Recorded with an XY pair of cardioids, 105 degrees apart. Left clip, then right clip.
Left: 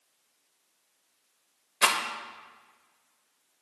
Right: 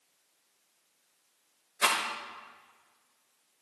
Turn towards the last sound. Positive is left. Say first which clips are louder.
# left 3 dB
turn(degrees=40)